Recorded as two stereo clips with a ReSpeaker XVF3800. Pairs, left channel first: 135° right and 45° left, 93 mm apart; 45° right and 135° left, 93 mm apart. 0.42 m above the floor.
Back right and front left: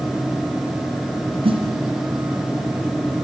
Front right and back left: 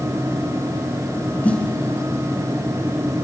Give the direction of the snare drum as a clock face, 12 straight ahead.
11 o'clock.